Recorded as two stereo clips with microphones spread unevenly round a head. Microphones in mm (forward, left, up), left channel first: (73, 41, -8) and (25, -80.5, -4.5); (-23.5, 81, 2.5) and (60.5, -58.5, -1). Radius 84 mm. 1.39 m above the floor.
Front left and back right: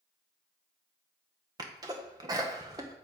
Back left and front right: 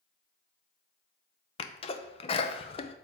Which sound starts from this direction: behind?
A sneeze, at 1.6 s.